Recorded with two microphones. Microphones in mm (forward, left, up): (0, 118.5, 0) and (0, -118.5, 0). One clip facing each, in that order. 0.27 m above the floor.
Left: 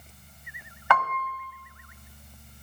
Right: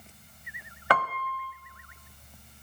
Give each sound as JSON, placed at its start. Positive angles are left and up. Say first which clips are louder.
{"t": 0.9, "sound": "a piano", "louder": "left 1 dB", "side_deg": -40, "distance_m": 0.9}